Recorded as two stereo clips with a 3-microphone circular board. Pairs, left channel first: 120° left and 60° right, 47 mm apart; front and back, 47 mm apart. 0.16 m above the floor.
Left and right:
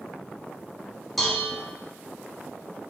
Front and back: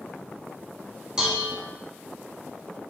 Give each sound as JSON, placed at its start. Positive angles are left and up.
{"t": 1.2, "sound": "dishes clattering", "azimuth_deg": -160, "distance_m": 1.0}